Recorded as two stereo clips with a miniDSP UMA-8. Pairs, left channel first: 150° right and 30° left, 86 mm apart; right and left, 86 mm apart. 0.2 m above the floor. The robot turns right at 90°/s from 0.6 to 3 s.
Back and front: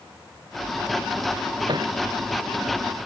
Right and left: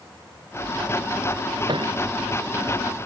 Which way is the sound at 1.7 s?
60° left.